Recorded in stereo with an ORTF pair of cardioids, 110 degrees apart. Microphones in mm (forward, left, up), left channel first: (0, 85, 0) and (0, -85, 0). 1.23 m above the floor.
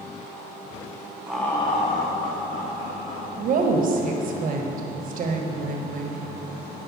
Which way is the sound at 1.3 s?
10° right.